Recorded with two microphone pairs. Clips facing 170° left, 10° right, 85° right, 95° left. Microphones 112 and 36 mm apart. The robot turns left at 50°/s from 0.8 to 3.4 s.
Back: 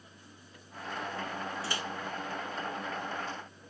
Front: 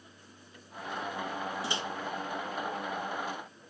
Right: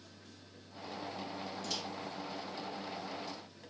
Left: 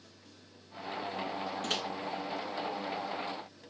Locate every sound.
1.6 s a microwave: 60° left, 0.9 m; by 1.8 s 50° left, 0.9 m